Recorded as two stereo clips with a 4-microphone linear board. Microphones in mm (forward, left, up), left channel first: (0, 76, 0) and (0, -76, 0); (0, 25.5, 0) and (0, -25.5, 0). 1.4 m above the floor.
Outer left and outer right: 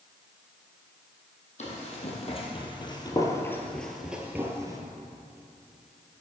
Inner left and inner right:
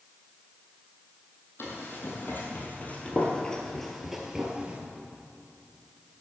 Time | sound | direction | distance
1.6 | running footsteps | 50° left (ahead or behind) | 2.5 m